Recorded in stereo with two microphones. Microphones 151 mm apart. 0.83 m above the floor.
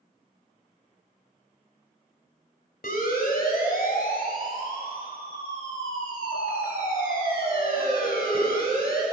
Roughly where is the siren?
Left.